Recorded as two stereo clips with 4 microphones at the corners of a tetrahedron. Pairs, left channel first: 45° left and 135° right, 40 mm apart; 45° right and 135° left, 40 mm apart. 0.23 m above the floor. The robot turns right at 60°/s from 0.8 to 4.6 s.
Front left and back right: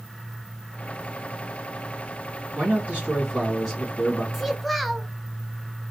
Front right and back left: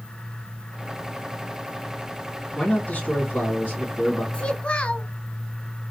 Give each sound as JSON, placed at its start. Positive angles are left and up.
{"t": 2.5, "sound": "a man speaking", "azimuth_deg": -110, "distance_m": 2.5}
{"t": 4.3, "sound": "a child speaking", "azimuth_deg": -55, "distance_m": 0.7}